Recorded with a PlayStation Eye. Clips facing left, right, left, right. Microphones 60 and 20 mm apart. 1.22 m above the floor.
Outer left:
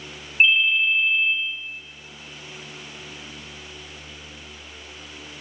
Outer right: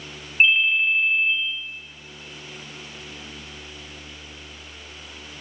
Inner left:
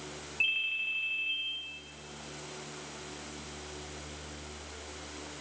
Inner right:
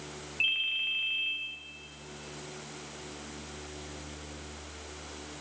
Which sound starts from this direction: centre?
A ringtone, at 0.4 s.